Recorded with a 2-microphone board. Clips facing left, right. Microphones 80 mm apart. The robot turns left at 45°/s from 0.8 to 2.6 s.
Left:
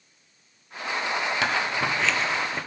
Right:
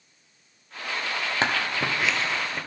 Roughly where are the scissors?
Right.